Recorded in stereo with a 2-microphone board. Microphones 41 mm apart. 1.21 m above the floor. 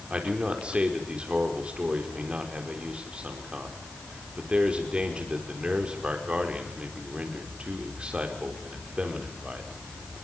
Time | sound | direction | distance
0.1 | a man speaking | 30° right (ahead or behind) | 4.5 m